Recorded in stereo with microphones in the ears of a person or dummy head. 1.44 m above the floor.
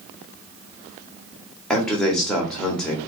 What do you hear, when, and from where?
1.7 s a man speaking: 10° left (ahead or behind), 1.5 m